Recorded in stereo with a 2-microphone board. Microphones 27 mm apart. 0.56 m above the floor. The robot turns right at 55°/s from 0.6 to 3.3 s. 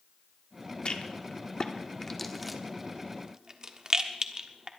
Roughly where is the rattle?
Left.